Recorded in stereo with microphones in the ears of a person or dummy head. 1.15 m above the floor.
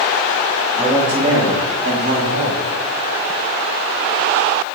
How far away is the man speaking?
About 1.4 m.